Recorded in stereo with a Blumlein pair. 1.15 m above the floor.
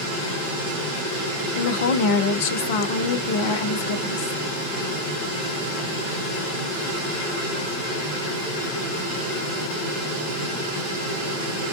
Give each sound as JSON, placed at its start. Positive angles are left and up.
{"t": 1.6, "sound": "a woman speaking", "azimuth_deg": 50, "distance_m": 0.7}